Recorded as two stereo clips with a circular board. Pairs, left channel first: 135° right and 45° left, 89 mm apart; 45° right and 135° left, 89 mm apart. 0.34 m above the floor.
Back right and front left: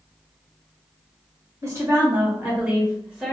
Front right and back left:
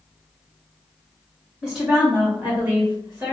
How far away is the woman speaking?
About 1.7 m.